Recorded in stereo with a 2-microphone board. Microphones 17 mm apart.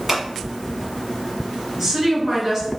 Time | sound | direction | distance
0.1 | scissors | 20° right (ahead or behind) | 1.2 m
1.8 | a woman speaking | 15° right (ahead or behind) | 1.3 m